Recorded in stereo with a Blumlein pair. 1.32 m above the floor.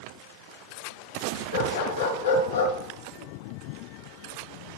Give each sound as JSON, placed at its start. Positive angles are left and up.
{"t": 1.5, "sound": "a dog barking", "azimuth_deg": 65, "distance_m": 5.5}